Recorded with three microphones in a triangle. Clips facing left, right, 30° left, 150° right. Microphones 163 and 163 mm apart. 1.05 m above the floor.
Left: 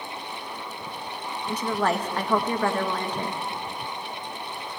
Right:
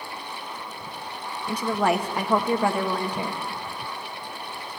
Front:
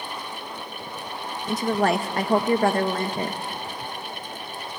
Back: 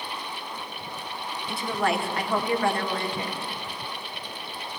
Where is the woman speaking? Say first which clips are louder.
Right 2 dB, front 5 dB; 15° right, 1.5 m.